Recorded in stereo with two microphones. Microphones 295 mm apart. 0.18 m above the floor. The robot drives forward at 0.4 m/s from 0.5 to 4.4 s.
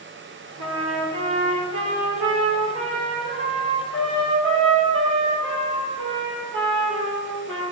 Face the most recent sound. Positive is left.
turn(degrees=-40)  # may be behind; listen again after turning